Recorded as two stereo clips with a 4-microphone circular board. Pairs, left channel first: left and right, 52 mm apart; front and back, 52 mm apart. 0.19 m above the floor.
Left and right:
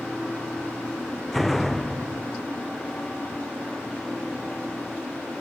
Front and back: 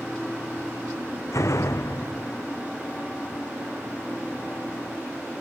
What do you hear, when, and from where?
1.3 s a door slam: straight ahead